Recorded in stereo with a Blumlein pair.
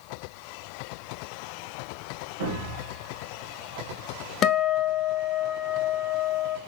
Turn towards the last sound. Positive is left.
turn(degrees=30)